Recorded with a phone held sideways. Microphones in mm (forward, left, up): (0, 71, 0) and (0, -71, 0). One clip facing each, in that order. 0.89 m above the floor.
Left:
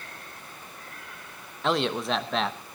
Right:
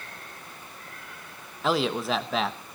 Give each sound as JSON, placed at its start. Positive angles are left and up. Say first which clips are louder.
{"t": 1.6, "sound": "a man speaking", "louder": "right 1 dB", "side_deg": 0, "distance_m": 1.0}